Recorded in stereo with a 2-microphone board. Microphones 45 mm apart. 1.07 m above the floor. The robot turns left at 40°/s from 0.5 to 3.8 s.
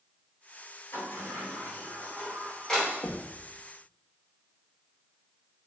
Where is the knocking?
75° left (ahead or behind), 1.4 m; by 3.4 s 70° left (ahead or behind), 1.4 m.